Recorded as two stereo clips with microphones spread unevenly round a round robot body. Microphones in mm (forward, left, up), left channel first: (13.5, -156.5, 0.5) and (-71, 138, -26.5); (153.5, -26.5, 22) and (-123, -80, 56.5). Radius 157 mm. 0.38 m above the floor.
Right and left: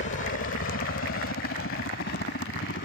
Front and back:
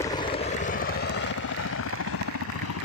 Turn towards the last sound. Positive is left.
turn(degrees=-15)